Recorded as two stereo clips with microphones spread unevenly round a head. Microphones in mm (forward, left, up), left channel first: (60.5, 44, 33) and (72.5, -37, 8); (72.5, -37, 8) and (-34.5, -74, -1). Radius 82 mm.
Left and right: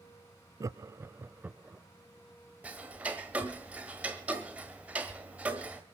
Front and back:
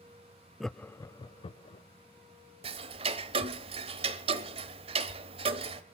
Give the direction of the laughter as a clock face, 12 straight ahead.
2 o'clock.